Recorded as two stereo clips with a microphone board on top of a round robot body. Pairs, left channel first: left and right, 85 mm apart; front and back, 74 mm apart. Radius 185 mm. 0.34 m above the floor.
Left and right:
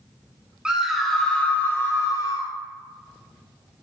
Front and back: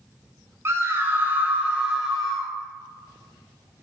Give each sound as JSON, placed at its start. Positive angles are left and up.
{"t": 0.7, "sound": "a scream", "azimuth_deg": -165, "distance_m": 1.1}